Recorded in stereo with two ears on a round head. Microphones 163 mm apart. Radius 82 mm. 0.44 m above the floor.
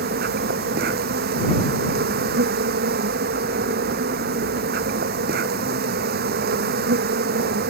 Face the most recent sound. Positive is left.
turn(degrees=-60)  # may be behind; listen again after turning